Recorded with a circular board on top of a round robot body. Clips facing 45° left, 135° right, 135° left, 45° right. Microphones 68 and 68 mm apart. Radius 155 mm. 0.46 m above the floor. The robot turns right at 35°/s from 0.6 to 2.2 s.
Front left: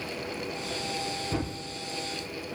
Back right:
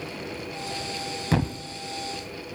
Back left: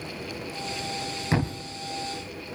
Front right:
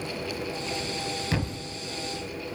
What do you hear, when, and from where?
1.3 s a thud: 160° right, 0.6 m; by 1.6 s 150° right, 0.6 m